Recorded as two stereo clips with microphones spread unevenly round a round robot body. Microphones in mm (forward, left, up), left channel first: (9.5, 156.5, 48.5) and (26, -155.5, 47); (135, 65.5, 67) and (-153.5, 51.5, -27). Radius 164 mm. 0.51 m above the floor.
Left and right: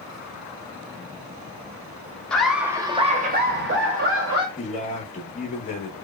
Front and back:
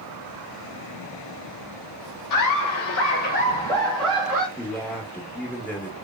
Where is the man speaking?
125° left, 0.7 m.